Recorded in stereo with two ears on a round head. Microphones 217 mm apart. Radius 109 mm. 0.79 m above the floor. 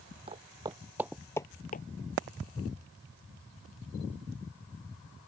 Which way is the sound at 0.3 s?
25° right (ahead or behind).